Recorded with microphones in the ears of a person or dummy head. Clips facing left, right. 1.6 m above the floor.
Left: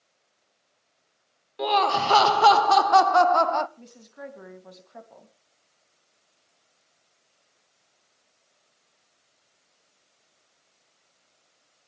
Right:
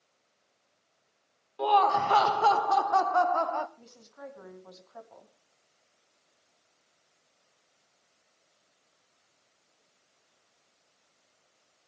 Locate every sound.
1.6 s laughter: 20° left (ahead or behind), 0.7 m; by 3.7 s 65° left (ahead or behind), 1.1 m
3.8 s a woman speaking: 35° left (ahead or behind), 2.5 m